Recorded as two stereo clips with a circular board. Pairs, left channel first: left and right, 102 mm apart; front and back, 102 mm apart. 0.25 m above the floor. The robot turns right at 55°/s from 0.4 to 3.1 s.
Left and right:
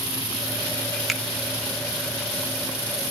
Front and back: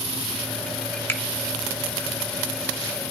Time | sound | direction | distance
1.1 | a finger snap | 5° right | 0.7 m